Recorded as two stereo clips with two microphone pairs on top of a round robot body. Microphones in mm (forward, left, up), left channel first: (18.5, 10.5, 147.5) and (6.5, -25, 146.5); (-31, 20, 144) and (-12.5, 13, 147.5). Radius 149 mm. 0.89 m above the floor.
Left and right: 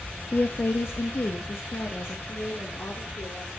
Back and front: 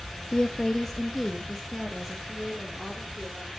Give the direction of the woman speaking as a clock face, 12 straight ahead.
8 o'clock.